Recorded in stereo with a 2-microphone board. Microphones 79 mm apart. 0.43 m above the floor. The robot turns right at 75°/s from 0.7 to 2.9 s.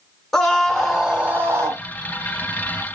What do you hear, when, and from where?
0.3 s a scream: 170° left, 0.9 m; by 1.8 s 105° right, 0.9 m